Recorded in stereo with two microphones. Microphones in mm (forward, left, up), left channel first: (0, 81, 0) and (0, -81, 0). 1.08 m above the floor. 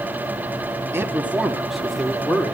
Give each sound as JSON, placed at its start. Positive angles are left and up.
{"t": 0.9, "sound": "a man speaking", "side_deg": -15, "distance_m": 1.9}